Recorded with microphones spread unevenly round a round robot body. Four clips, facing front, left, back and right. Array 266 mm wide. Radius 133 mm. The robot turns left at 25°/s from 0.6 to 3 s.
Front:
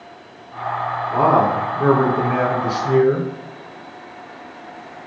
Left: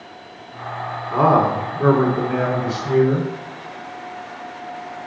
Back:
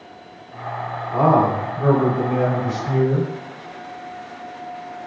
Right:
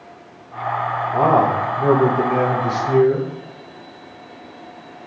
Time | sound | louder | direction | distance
1.1 | a man speaking | even, front 1 dB | 70° left | 4 m